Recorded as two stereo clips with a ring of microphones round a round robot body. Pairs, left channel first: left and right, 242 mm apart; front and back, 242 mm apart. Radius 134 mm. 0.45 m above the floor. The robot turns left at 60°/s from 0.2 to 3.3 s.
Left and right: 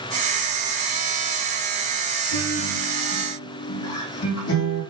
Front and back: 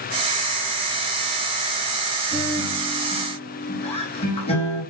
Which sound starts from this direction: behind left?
A guitar, at 2.3 s.